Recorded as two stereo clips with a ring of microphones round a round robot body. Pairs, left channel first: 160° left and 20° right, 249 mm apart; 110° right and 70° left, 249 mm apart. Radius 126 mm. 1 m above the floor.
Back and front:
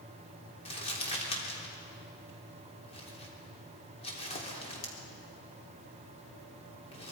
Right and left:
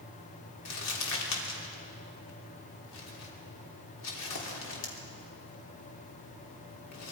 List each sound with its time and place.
0.7 s crumpling: 135° right, 3.5 m